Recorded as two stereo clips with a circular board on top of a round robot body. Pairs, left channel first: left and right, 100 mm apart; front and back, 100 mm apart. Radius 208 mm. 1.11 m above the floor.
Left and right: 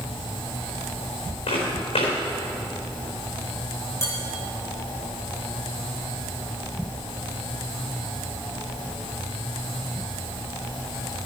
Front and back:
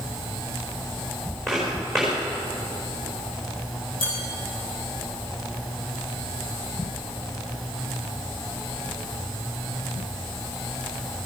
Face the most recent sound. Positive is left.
turn(degrees=30)